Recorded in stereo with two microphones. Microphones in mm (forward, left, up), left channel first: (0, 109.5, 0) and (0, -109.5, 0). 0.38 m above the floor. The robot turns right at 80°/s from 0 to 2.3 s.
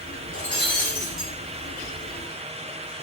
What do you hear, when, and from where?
0.3 s breaking glass: 70° right, 4.5 m; by 1.3 s 10° left, 4.5 m